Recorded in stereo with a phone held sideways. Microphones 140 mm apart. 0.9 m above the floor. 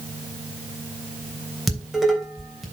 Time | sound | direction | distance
1.7 | dishes clattering | centre (ahead or behind) | 3 m